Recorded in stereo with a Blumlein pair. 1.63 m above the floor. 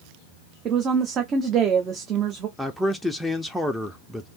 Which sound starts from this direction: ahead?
A man speaking, at 2.6 s.